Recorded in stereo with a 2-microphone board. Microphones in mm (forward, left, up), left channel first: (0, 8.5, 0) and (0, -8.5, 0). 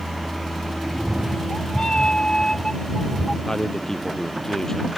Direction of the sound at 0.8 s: 55° left (ahead or behind).